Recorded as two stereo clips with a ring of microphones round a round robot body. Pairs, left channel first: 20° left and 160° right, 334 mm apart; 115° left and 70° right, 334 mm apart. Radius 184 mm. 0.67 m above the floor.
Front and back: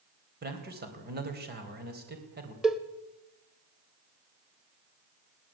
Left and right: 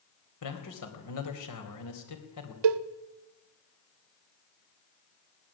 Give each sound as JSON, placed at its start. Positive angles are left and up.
{"t": 0.4, "sound": "a man speaking", "azimuth_deg": 140, "distance_m": 4.0}
{"t": 2.6, "sound": "a cowbell", "azimuth_deg": -70, "distance_m": 1.0}